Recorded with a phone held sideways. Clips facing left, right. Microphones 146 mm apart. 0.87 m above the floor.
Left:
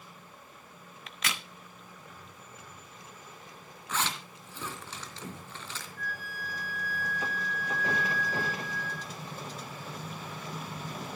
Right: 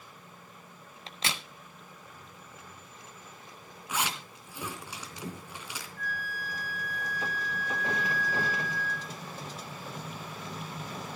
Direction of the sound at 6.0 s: 45° right (ahead or behind).